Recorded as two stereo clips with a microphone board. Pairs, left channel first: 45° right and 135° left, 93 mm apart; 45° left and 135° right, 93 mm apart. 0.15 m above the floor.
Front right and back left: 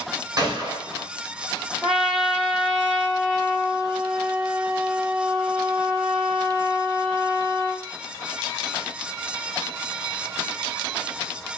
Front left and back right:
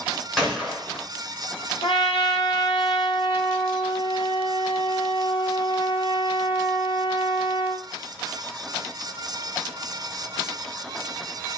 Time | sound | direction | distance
0.4 | a gunshot | 135° left | 1.4 m
1.8 | a trumpet | 50° left | 0.7 m